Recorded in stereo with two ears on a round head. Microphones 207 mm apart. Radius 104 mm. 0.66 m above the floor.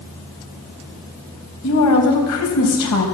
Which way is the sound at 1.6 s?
80° left.